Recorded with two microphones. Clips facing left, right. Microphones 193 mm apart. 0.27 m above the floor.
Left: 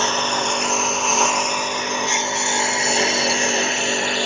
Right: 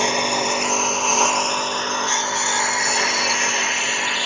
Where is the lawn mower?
15° right (ahead or behind); by 4.2 s 40° left (ahead or behind).